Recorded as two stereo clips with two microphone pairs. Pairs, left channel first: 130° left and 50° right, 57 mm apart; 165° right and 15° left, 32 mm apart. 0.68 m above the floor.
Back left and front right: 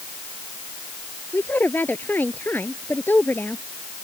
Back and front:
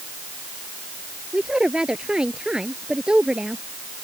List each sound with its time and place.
1.3 s a woman speaking: 80° left